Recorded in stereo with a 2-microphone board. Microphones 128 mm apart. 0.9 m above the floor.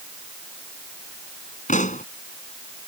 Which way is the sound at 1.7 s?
75° left (ahead or behind).